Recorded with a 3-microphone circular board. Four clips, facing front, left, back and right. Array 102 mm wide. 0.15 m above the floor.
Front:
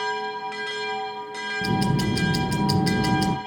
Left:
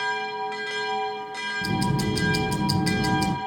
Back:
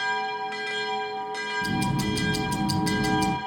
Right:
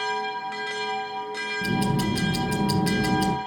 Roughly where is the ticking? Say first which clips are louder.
Right 1 dB, front 4 dB; ahead.